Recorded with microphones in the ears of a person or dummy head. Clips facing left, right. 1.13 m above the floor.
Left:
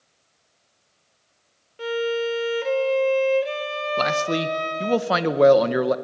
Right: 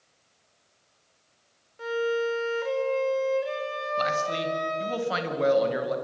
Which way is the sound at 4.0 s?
60° left (ahead or behind).